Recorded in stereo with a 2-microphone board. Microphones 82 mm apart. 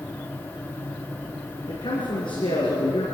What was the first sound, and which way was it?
A man speaking, 70° left (ahead or behind).